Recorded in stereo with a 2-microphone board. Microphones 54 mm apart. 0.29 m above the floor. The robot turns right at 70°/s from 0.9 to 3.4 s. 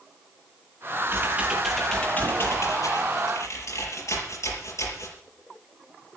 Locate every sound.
1.1 s typing on a keyboard: 50° right, 6 m; by 5.2 s 115° left, 6 m